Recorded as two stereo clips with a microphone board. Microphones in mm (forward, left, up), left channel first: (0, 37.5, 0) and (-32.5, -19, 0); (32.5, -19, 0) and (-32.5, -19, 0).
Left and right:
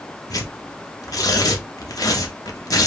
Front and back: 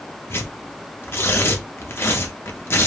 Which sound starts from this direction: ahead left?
Tearing paper, at 0.3 s.